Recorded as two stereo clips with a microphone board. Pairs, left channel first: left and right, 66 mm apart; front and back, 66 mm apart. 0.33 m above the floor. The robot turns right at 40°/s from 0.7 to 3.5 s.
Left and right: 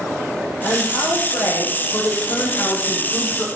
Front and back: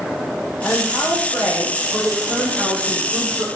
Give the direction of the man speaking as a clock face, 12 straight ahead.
10 o'clock.